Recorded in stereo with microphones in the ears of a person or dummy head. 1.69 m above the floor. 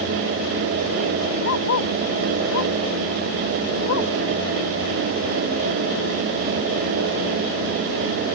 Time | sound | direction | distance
1.4 | a dog barking | 85° left | ?